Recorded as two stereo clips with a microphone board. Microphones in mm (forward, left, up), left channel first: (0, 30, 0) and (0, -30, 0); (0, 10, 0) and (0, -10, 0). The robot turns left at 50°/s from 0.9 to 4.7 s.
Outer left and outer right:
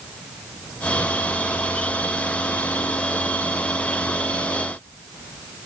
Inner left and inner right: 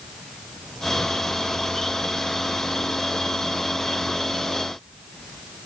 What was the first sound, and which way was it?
Only background noise.